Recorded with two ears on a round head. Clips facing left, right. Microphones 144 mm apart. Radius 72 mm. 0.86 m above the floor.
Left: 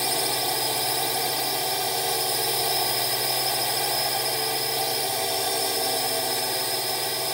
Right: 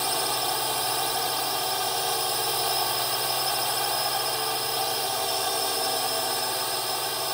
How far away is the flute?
No flute in this recording.